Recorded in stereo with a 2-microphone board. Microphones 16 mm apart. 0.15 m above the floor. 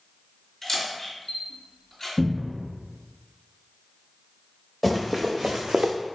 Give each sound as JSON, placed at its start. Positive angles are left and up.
{"t": 0.6, "sound": "a camera shutter", "side_deg": 20, "distance_m": 1.9}
{"t": 2.2, "sound": "a cupboard door", "side_deg": -5, "distance_m": 0.8}
{"t": 4.8, "sound": "running footsteps", "side_deg": -5, "distance_m": 1.4}